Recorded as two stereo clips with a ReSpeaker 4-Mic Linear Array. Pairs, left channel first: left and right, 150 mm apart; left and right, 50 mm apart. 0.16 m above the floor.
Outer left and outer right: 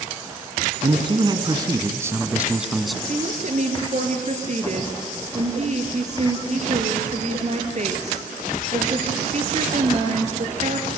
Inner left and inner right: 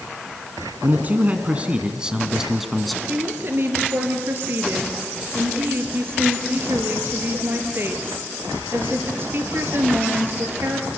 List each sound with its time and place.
0.8 s a man speaking: 40° right (ahead or behind), 1.7 m; by 3.0 s centre (ahead or behind), 1.5 m
3.1 s a woman speaking: 50° right (ahead or behind), 2.5 m